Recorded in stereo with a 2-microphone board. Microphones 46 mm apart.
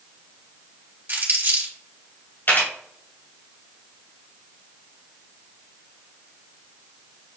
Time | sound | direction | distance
1.1 | crumpling | 45° right (ahead or behind) | 1.7 m
2.5 | a camera shutter | 55° left (ahead or behind) | 2.5 m